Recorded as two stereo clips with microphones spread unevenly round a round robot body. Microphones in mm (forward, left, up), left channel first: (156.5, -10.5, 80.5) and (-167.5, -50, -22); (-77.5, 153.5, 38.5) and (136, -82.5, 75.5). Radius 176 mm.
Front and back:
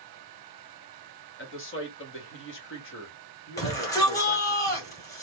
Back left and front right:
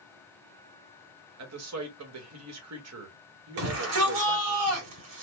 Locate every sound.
1.4 s a man speaking: 50° right, 1.5 m
3.6 s a shout: 80° right, 2.5 m